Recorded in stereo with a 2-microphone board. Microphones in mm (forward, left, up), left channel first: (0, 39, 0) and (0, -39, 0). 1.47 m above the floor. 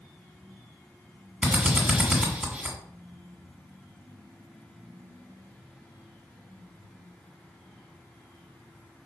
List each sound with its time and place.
1.4 s a drill: 15° right (ahead or behind), 2 m